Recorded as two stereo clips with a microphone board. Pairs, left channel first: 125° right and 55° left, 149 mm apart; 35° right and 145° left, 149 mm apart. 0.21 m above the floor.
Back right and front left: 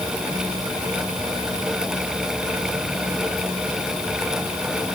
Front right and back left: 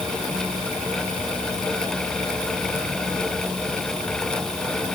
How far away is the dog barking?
No dog barking in this recording.